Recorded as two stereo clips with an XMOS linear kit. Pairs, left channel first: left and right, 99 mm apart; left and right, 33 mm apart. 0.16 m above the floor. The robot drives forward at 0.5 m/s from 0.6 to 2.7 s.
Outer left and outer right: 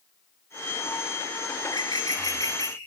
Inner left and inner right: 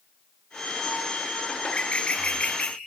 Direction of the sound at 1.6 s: 45° left (ahead or behind).